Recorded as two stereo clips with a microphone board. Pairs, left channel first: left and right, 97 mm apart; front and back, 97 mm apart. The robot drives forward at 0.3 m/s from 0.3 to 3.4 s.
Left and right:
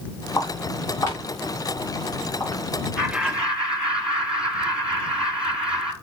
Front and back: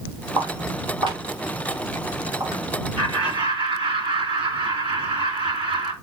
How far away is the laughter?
About 3 m.